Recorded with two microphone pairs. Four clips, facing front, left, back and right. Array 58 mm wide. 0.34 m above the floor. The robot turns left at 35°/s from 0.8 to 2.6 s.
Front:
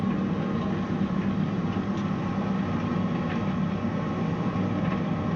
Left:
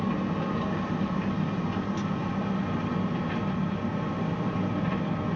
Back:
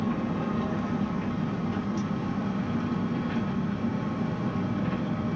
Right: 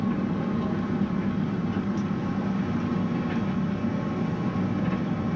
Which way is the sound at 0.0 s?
80° left.